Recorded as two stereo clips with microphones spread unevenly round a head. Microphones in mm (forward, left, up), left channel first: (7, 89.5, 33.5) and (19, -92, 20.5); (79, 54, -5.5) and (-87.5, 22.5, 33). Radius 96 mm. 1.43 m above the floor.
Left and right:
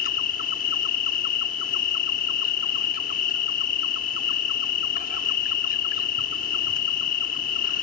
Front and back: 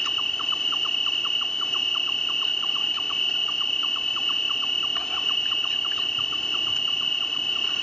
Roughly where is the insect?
Left.